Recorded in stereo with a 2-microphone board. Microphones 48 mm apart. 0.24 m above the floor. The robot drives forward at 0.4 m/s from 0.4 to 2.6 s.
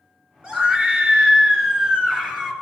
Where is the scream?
25° right (ahead or behind), 3 m; by 2.5 s 20° right (ahead or behind), 3.5 m.